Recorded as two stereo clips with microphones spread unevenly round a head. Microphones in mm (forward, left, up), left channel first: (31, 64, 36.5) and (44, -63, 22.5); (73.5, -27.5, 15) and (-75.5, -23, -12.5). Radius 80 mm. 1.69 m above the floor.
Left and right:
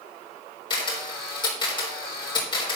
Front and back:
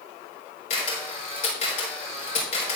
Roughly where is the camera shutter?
Ahead left.